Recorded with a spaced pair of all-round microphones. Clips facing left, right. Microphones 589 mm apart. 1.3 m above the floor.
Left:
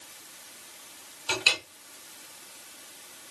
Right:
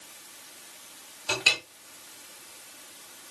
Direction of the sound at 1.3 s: 65° right (ahead or behind).